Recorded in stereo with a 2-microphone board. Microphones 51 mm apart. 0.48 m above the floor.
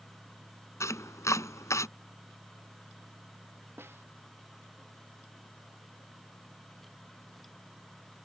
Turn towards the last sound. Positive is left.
turn(degrees=-50)  # may be behind; listen again after turning